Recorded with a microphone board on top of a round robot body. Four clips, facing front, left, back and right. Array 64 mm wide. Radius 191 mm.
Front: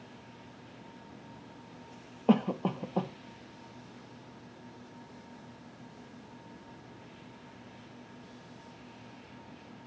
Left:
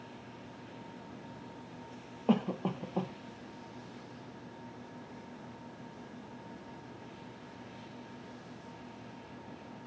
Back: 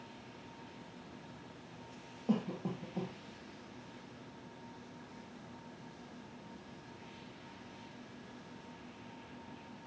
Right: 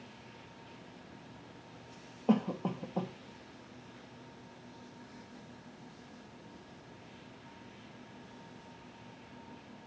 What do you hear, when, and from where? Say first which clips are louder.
2.3 s a cough: even, front 9 dB; 15° left, 0.9 m